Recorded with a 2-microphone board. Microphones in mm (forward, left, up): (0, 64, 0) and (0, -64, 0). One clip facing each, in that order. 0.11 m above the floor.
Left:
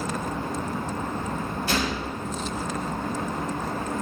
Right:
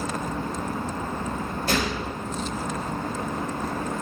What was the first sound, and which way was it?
A gunshot, 60° right (ahead or behind).